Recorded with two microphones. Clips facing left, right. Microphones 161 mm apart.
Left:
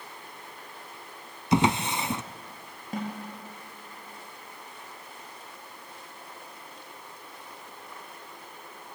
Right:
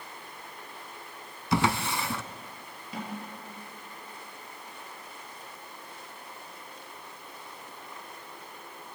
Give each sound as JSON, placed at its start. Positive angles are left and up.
{"t": 1.5, "sound": "a drawer", "side_deg": 20, "distance_m": 0.6}
{"t": 2.9, "sound": "a snare drum", "side_deg": 50, "distance_m": 5.5}